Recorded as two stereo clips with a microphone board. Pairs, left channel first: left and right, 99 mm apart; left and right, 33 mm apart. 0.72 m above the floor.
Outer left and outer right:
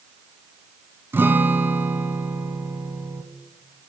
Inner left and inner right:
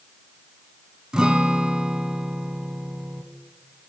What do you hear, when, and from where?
1.1 s a guitar: 20° right (ahead or behind), 1.3 m